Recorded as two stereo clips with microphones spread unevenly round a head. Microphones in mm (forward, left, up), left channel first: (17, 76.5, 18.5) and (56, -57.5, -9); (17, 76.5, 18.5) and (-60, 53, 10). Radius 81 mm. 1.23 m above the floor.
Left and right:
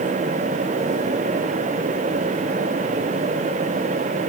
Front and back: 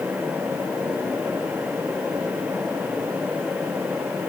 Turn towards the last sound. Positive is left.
No sound to turn to.